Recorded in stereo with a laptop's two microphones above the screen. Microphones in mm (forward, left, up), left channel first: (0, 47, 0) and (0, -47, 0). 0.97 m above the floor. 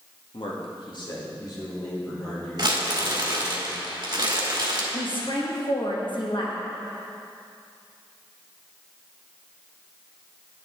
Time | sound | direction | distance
0.3 | a man speaking | 70° left (ahead or behind) | 1.2 m
2.6 | crumpling | 50° right (ahead or behind) | 1.3 m
4.9 | a woman speaking | 60° left (ahead or behind) | 1.4 m